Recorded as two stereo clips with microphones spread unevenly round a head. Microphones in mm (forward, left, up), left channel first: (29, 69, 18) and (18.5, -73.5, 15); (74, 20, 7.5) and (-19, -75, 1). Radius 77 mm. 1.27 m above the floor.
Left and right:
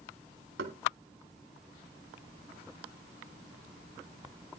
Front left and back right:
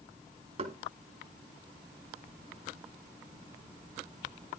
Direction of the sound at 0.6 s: 100° right.